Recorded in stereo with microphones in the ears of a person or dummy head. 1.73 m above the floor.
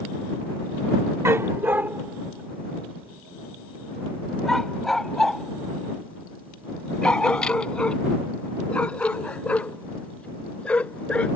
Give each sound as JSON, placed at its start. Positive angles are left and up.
{"t": 1.2, "sound": "a dog barking", "side_deg": -25}